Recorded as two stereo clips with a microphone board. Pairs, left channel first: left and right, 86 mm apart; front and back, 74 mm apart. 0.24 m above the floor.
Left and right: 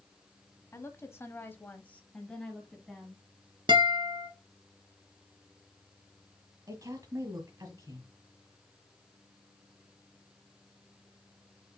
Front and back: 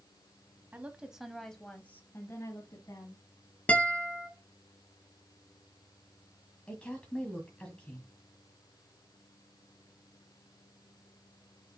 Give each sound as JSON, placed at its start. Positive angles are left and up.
{"t": 0.7, "sound": "a woman speaking", "azimuth_deg": 125, "distance_m": 1.2}
{"t": 3.7, "sound": "a guitar", "azimuth_deg": -70, "distance_m": 1.1}
{"t": 6.7, "sound": "a woman speaking", "azimuth_deg": -70, "distance_m": 1.4}